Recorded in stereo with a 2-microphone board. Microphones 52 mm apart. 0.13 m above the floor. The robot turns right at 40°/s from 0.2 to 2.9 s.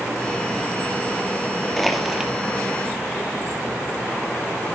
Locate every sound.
1.8 s crushing: 5° left (ahead or behind), 2.5 m; by 2.3 s 15° right (ahead or behind), 2.5 m